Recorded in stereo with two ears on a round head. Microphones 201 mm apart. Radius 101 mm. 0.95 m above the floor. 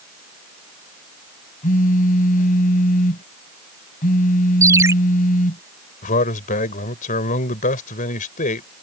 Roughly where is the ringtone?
Centre.